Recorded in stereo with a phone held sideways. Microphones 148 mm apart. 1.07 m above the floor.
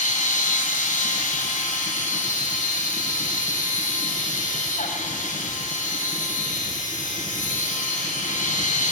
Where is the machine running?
65° left (ahead or behind), 6 m.